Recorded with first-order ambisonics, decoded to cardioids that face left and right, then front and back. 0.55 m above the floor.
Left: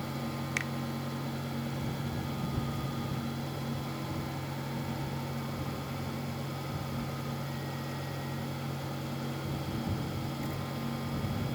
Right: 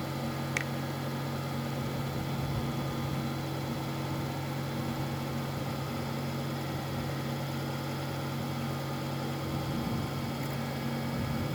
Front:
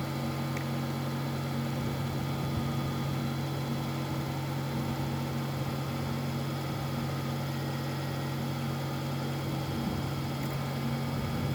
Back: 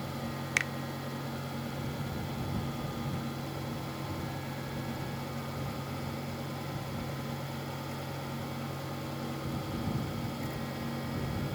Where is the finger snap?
Straight behind.